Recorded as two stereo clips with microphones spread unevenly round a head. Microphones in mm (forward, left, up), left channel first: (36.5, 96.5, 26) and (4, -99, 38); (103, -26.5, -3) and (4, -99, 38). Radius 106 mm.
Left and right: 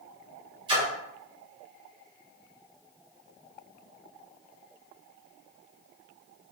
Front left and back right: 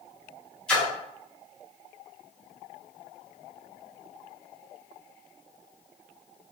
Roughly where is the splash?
Right.